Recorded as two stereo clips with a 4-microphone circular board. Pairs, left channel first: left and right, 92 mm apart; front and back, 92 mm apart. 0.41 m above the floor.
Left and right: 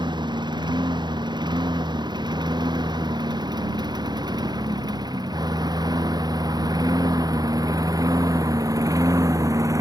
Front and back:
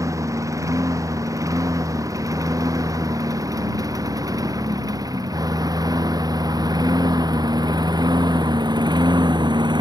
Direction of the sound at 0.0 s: 125° right.